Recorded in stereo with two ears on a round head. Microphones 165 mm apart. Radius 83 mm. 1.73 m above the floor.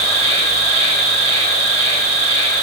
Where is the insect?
35° right (ahead or behind), 5.5 m.